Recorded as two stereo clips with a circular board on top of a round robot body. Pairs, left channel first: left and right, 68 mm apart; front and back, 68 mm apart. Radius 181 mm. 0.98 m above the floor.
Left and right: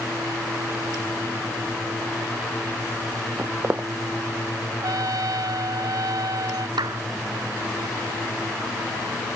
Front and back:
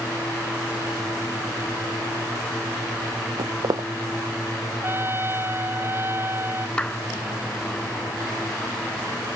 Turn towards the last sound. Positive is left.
turn(degrees=-75)